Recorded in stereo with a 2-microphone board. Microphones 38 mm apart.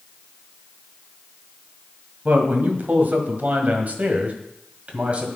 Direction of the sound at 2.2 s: 50° right (ahead or behind).